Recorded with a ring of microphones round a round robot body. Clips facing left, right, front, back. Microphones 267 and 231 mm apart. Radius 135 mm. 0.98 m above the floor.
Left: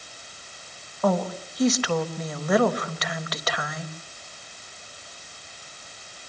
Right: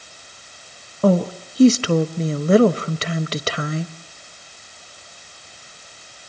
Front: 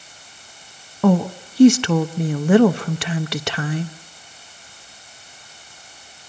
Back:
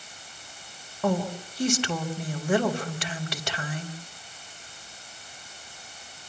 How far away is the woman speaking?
About 1.2 m.